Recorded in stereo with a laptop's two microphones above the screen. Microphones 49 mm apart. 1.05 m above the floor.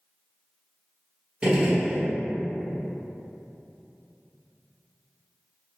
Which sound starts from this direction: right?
A gunshot, at 1.4 s.